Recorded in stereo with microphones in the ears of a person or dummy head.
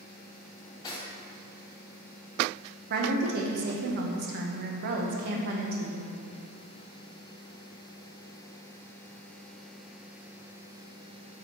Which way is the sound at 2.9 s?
55° right (ahead or behind).